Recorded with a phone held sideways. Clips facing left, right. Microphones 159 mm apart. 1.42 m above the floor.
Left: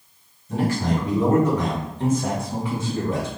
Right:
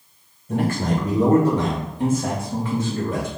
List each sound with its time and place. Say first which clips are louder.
0.5 s a man speaking: right 1 dB; 55° right (ahead or behind), 1.6 m; by 3.3 s 25° left (ahead or behind), 1.5 m